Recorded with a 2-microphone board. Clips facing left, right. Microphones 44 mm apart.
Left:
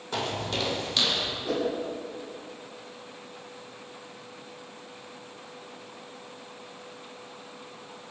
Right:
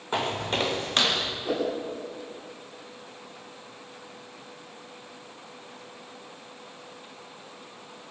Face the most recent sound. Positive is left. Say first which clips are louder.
# even
turn(degrees=-15)  # may be behind; listen again after turning